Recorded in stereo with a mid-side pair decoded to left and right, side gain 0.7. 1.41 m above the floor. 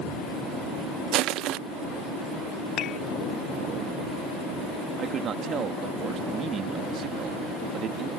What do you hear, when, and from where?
1.1 s crushing: 55° right
2.8 s dishes clattering: 45° left
5.0 s a man speaking: 40° right